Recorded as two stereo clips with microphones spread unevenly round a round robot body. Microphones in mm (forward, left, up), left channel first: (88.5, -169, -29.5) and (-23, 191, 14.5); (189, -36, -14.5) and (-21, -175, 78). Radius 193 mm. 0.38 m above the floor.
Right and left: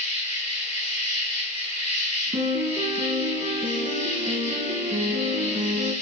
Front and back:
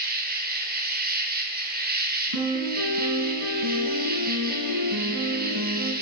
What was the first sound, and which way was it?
An insect, 90° right.